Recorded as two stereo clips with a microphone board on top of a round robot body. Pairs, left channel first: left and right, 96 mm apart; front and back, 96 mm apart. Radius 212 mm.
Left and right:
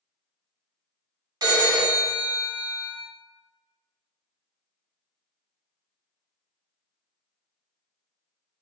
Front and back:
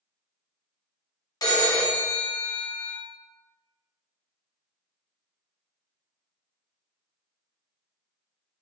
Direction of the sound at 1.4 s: 45° right.